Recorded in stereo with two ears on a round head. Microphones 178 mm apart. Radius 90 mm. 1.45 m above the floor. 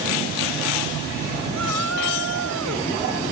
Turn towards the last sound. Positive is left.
turn(degrees=-75)  # may be behind; listen again after turning